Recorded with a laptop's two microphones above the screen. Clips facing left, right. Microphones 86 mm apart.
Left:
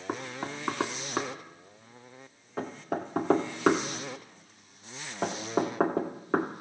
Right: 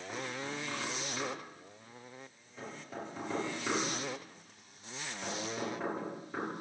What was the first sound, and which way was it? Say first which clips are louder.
Knocking: left 5 dB; 70° left (ahead or behind).